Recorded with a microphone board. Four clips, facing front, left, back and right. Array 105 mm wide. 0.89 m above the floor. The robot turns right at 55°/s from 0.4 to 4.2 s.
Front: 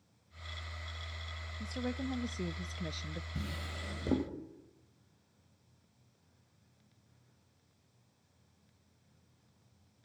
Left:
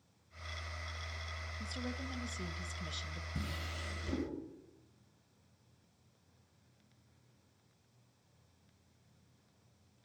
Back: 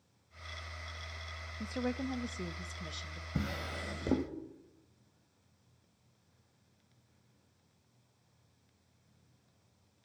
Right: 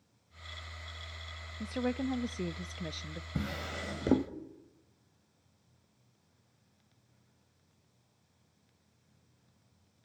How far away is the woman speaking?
About 0.8 m.